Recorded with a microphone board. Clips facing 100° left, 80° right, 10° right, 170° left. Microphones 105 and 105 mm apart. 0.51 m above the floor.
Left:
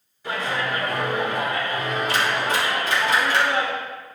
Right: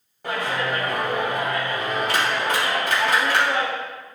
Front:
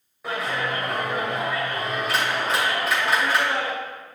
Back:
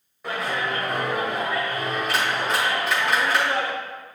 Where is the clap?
100° right, 2.5 m.